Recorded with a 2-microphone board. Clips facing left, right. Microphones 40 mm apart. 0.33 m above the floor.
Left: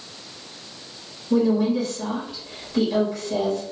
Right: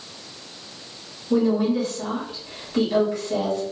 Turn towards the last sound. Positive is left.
turn(degrees=-20)  # may be behind; listen again after turning